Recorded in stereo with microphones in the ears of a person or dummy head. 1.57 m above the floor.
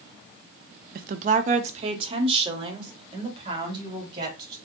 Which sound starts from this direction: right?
A woman speaking, at 0.9 s.